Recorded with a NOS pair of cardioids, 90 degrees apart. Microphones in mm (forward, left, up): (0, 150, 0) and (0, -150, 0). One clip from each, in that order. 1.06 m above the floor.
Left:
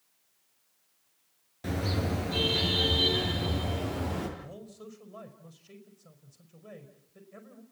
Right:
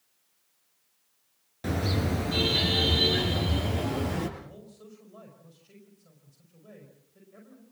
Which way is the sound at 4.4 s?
35° left.